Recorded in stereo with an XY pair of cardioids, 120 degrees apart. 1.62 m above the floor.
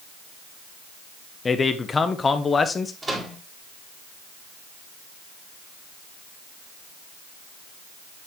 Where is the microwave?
15° right, 2.5 m.